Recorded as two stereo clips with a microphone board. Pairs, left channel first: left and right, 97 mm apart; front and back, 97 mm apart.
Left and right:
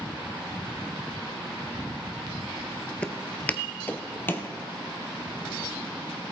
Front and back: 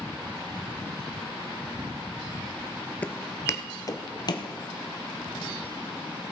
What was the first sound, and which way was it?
Footsteps, 40° left.